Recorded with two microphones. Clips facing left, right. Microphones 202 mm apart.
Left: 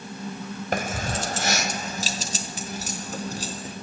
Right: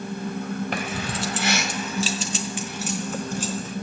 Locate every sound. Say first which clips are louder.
0.7 s keys jangling: left 1 dB; 45° left (ahead or behind), 1.2 m; by 3.7 s 35° left (ahead or behind), 3.5 m